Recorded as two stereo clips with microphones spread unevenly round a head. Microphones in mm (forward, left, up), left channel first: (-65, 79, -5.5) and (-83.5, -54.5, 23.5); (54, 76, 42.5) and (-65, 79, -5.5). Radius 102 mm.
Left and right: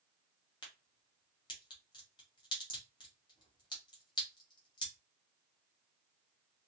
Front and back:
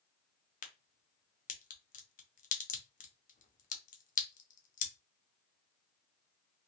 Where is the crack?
30° left, 0.8 m.